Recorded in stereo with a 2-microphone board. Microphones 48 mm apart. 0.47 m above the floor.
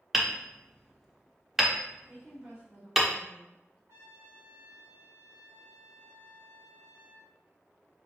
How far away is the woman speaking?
About 1.8 m.